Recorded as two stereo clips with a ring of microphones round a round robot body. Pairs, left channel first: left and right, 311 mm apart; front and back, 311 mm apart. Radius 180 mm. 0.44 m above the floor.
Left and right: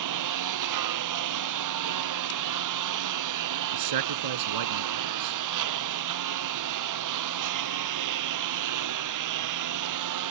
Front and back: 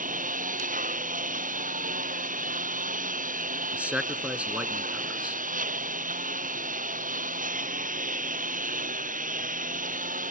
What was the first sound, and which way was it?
A lawn mower, 115° right.